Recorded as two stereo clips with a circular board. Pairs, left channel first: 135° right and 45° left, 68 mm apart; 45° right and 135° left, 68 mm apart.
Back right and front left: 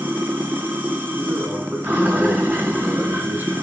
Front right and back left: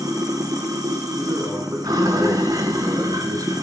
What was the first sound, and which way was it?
Running water, 110° left.